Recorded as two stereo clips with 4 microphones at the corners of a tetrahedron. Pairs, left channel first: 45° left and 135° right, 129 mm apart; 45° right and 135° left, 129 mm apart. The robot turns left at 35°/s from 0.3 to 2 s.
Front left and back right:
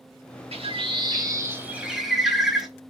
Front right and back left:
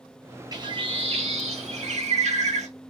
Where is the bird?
170° right, 0.8 m; by 2.7 s 135° left, 0.8 m.